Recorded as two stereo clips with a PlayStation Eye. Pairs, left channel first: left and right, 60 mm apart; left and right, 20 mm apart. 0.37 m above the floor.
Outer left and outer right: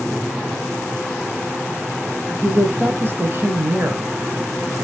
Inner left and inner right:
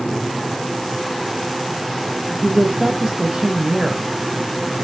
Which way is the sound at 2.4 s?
35° right (ahead or behind).